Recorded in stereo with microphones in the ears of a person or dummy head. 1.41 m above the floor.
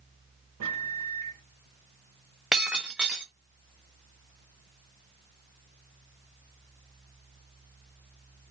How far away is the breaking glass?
About 0.6 m.